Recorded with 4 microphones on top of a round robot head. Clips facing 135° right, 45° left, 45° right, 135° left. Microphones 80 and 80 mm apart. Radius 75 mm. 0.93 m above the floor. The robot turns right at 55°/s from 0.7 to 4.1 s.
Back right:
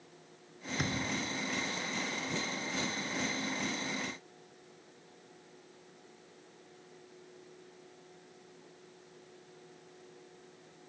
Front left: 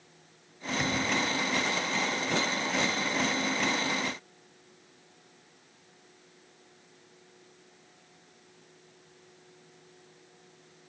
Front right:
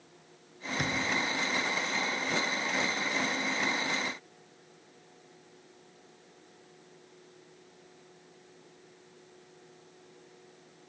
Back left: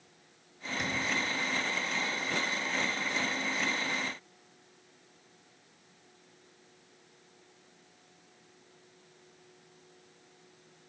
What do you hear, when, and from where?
0.8 s a thud: 95° right, 0.9 m; by 1.2 s 70° right, 0.9 m